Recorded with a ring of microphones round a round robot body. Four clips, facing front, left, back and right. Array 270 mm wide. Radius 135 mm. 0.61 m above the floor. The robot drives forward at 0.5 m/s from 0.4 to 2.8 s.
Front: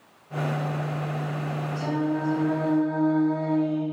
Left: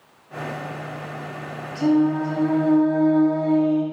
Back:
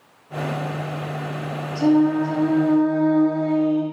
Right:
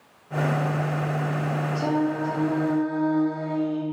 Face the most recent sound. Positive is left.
turn(degrees=145)